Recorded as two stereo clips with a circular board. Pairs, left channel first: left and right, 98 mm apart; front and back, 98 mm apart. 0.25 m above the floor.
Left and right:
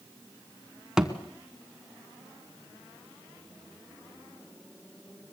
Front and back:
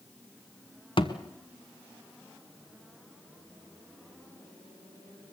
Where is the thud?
10° right, 1.3 m.